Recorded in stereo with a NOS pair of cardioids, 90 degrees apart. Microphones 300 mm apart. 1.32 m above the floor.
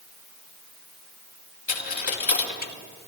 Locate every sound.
1.7 s a dropped coin: 35° left, 3 m